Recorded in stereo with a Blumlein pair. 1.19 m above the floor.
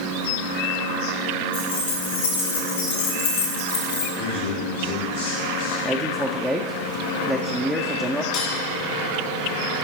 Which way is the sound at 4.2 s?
55° left.